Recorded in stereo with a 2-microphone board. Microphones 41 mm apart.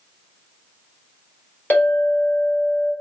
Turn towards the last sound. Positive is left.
turn(degrees=45)  # may be behind; listen again after turning